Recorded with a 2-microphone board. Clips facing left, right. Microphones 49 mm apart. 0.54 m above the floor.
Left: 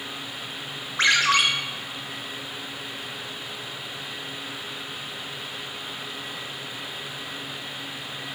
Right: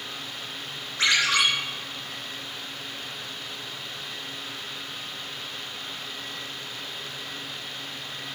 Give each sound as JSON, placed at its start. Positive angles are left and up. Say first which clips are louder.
{"t": 1.0, "sound": "a ringtone", "louder": "left 3 dB", "side_deg": 50, "distance_m": 0.7}